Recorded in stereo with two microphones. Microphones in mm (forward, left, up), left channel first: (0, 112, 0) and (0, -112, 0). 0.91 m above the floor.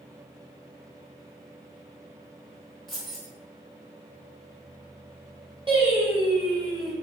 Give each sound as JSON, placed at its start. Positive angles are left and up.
{"t": 2.9, "sound": "keys jangling", "side_deg": 0, "distance_m": 1.0}
{"t": 5.7, "sound": "singing", "side_deg": -25, "distance_m": 1.3}